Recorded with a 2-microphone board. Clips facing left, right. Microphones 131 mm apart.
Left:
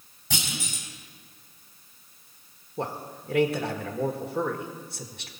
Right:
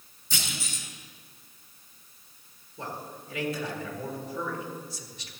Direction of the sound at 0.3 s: 75° left (ahead or behind).